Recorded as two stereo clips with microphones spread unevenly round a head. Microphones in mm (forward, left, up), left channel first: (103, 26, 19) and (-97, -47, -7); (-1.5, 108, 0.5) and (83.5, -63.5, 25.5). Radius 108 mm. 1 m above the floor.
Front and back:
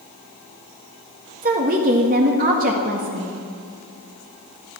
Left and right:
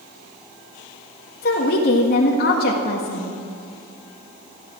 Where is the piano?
I don't hear a piano.